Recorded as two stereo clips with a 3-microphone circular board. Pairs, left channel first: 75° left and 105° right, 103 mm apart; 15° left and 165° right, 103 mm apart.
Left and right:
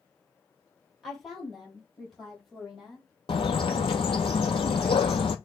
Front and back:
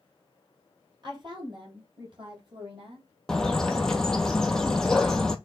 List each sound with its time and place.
1.0 s a woman speaking: 160° left, 2.5 m; by 3.1 s 165° left, 3.5 m
3.3 s a bird: 100° left, 0.6 m